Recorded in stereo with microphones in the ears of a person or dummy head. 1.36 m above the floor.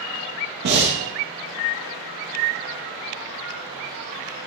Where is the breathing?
55° right (ahead or behind), 2 m.